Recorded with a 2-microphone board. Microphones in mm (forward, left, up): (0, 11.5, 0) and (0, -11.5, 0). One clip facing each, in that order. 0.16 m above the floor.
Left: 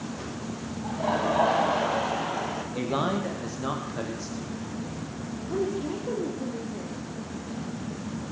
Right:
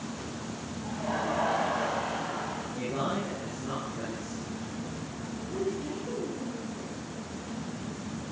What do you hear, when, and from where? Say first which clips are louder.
0.8 s laughter: left 5 dB; 55° left (ahead or behind), 4 m
2.8 s a man speaking: left 4 dB; 70° left (ahead or behind), 7.5 m
5.5 s a woman speaking: left 4 dB; 55° left (ahead or behind), 6 m